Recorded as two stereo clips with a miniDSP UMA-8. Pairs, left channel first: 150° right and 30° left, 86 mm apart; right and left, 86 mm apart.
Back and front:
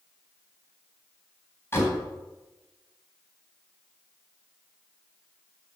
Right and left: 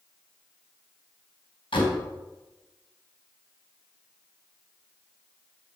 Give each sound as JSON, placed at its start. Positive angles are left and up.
{"t": 1.7, "sound": "a door slam", "azimuth_deg": -90, "distance_m": 3.5}